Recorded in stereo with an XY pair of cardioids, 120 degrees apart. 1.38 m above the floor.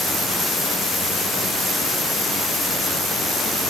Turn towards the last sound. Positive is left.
No sound to turn to.